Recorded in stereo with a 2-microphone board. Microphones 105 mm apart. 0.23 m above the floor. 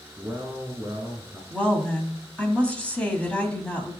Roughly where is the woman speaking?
Centre.